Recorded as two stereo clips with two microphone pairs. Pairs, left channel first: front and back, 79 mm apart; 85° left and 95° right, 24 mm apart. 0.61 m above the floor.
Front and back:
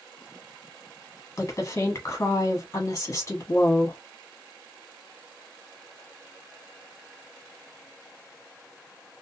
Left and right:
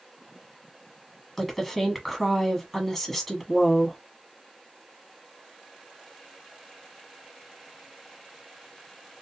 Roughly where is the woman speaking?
Ahead.